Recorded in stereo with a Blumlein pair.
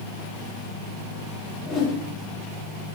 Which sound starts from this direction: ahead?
A whoosh, at 1.6 s.